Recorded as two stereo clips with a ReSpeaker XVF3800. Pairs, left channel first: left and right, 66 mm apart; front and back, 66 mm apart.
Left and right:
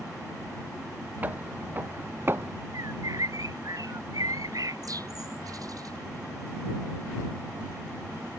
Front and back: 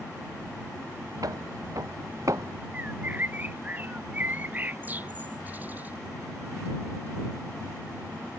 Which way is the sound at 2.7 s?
115° right.